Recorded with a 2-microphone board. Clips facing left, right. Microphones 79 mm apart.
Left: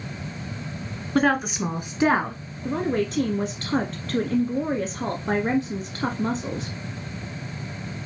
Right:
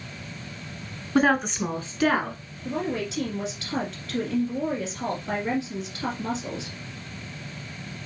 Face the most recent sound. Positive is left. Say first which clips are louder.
# left 4 dB
turn(degrees=45)  # may be behind; listen again after turning